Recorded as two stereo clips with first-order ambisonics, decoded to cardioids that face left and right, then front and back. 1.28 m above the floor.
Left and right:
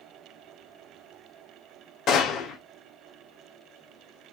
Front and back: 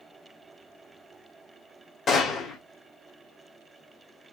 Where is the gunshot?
55° left, 1.1 m.